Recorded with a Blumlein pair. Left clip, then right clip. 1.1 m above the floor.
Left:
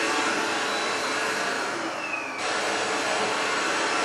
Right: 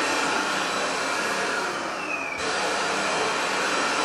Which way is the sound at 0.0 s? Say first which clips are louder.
Right 1 dB; 50° right.